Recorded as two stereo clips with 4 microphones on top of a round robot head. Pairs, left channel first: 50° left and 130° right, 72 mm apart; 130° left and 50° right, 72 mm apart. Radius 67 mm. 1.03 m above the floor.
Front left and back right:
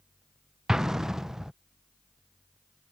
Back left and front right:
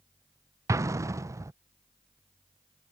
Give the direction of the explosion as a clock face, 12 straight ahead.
2 o'clock.